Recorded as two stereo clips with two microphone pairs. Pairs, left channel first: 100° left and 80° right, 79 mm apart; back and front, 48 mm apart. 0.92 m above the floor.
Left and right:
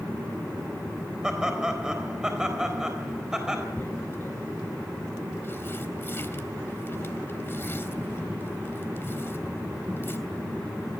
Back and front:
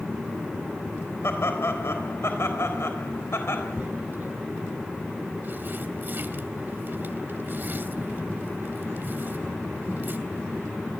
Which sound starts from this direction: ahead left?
Tearing paper, at 3.8 s.